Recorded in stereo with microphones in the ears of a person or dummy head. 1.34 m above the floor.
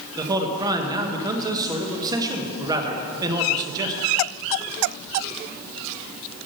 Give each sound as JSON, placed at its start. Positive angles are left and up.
{"t": 0.2, "sound": "a man speaking", "side_deg": -20, "distance_m": 1.2}